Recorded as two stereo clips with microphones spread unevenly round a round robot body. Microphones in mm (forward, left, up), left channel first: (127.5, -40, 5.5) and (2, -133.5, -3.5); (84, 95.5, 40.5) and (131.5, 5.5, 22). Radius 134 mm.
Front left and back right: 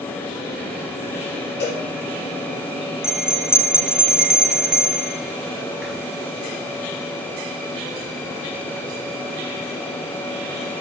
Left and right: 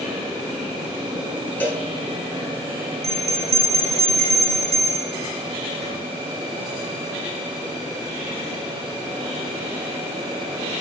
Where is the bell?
55° right, 1.7 m.